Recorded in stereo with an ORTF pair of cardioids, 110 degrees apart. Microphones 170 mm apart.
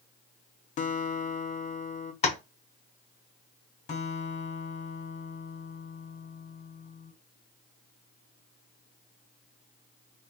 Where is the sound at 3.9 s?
40° left, 1.3 m.